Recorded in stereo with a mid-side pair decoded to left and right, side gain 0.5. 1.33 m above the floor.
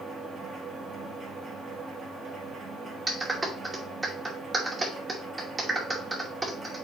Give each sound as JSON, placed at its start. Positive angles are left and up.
{"t": 0.0, "sound": "a machine running", "azimuth_deg": -40, "distance_m": 2.5}
{"t": 3.1, "sound": "a clap", "azimuth_deg": -30, "distance_m": 2.5}